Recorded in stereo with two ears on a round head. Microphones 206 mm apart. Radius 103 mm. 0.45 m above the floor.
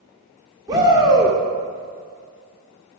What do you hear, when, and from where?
0.7 s a shout: 15° right (ahead or behind), 0.8 m